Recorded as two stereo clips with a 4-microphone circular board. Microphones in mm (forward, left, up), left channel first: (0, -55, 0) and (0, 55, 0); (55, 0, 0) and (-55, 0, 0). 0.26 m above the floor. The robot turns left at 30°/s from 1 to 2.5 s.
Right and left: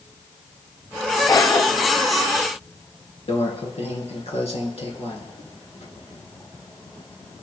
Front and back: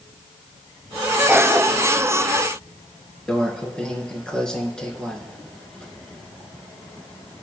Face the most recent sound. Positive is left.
turn(degrees=-80)